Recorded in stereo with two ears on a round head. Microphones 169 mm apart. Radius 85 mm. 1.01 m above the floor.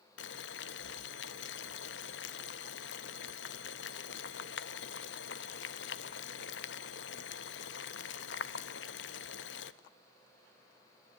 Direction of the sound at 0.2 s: 60° left (ahead or behind).